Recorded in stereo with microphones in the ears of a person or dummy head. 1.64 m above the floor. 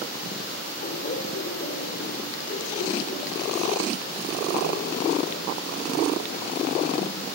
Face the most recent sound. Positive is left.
turn(degrees=60)  # may be behind; listen again after turning